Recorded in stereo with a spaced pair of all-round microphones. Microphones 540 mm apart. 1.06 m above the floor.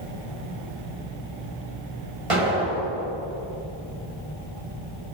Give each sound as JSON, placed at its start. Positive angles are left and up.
{"t": 2.3, "sound": "an explosion", "side_deg": -65, "distance_m": 4.5}